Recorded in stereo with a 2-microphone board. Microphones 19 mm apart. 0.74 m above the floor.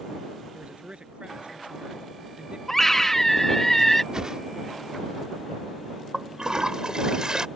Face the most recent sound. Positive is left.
turn(degrees=-35)  # may be behind; listen again after turning